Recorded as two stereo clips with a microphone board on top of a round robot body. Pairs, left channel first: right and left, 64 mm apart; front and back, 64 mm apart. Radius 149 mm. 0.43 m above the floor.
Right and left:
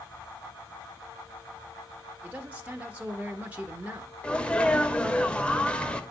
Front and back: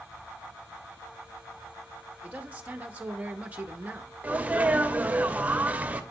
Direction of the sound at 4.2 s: 145° right.